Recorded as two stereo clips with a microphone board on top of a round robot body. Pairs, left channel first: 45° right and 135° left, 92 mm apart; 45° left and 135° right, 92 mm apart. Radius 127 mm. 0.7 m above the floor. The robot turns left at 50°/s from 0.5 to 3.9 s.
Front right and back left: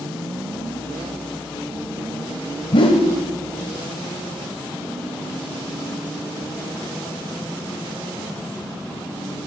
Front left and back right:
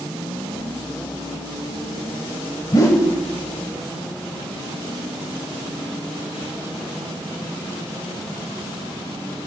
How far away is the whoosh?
About 0.9 m.